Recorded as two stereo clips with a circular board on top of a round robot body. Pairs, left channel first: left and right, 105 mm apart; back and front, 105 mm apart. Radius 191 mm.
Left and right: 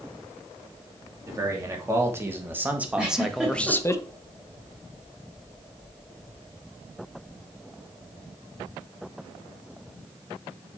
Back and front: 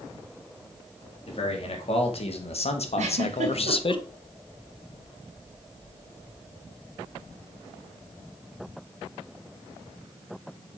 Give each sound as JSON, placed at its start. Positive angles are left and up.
{"t": 1.2, "sound": "a man speaking", "azimuth_deg": -150, "distance_m": 3.0}
{"t": 3.0, "sound": "a giggle", "azimuth_deg": -5, "distance_m": 2.0}